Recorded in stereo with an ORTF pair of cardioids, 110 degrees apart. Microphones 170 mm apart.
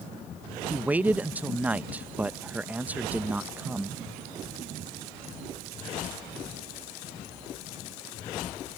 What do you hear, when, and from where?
0.7 s a man speaking: 10° right